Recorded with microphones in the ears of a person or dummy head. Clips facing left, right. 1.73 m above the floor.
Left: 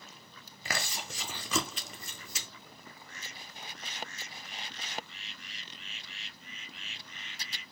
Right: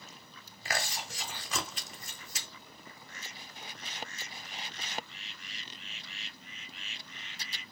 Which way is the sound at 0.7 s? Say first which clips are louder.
Right 1 dB; 70° left (ahead or behind).